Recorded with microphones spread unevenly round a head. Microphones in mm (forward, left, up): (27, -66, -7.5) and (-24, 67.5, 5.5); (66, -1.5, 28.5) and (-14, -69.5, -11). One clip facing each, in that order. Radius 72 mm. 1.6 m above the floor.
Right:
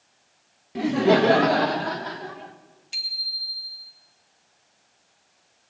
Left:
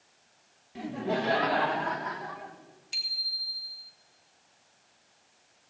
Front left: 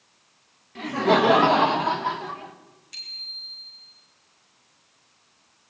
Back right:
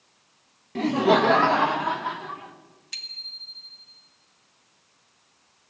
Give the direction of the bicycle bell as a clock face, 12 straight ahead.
5 o'clock.